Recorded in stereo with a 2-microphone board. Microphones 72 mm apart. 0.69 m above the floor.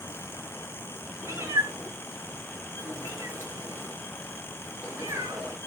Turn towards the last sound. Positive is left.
turn(degrees=-40)  # may be behind; listen again after turning